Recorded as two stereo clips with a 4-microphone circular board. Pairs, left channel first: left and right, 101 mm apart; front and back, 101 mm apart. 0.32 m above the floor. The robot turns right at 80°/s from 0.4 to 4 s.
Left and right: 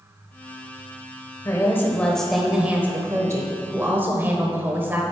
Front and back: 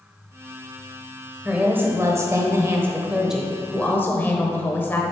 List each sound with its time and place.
1.4 s a woman speaking: 110° left, 0.9 m; by 5.0 s 45° right, 0.9 m